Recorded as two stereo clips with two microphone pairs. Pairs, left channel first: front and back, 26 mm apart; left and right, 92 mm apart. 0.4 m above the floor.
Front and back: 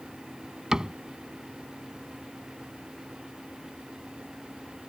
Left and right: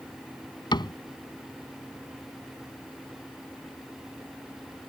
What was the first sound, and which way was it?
A cupboard door, 125° left.